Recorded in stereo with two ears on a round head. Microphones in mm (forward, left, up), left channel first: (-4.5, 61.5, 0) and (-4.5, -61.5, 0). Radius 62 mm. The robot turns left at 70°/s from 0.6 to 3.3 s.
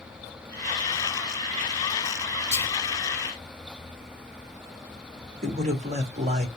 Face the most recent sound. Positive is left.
turn(degrees=-50)  # may be behind; listen again after turning